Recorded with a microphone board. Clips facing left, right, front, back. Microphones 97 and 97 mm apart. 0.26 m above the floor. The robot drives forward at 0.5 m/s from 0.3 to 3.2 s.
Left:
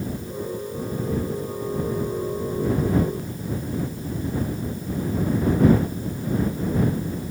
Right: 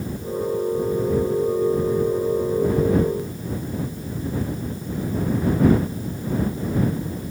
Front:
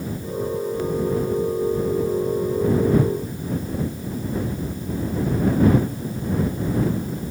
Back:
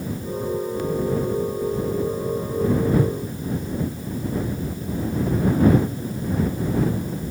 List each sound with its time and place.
Only background noise.